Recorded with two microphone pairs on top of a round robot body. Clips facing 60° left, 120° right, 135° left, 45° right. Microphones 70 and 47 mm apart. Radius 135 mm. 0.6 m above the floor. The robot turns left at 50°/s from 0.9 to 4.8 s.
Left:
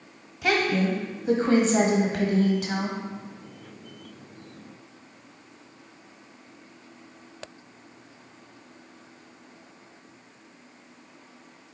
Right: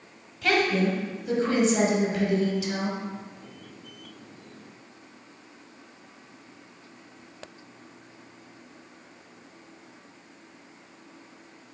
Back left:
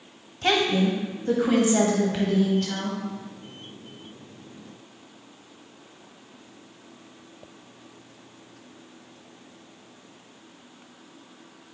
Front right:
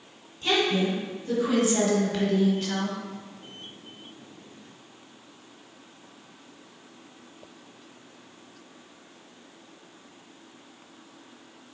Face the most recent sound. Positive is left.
turn(degrees=-70)